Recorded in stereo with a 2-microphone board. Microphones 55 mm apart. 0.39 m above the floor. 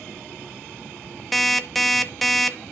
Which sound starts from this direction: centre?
An alarm clock, at 1.3 s.